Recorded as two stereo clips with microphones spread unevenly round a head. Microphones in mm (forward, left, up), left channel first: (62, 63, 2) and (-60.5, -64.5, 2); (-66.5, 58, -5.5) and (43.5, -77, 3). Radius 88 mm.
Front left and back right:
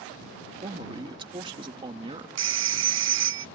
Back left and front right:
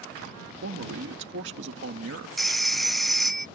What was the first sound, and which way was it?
A man speaking, 70° right.